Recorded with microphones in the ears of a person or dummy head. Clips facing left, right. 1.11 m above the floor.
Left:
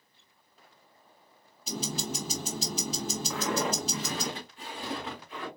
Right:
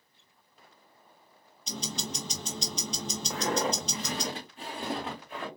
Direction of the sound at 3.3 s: 30° right (ahead or behind).